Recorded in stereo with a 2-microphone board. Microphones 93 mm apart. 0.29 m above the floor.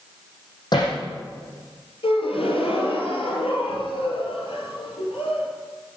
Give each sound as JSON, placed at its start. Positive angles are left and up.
{"t": 0.7, "sound": "hammering", "side_deg": 50, "distance_m": 7.0}
{"t": 2.0, "sound": "a gasp", "side_deg": 80, "distance_m": 3.0}